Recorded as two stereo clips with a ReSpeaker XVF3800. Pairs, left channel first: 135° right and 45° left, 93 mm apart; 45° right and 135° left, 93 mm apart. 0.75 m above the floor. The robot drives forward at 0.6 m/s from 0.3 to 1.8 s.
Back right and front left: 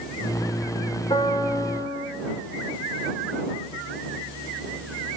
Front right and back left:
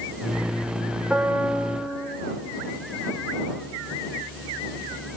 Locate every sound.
1.1 s a piano: 145° right, 3 m; by 2.1 s 150° right, 3.5 m